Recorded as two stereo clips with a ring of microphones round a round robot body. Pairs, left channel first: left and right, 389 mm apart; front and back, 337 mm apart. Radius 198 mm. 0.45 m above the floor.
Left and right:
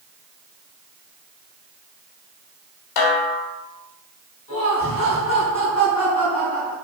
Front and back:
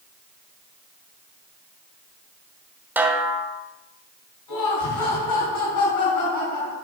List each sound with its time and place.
3.0 s a snare drum: 95° left, 1.4 m
4.5 s laughter: 15° left, 4.5 m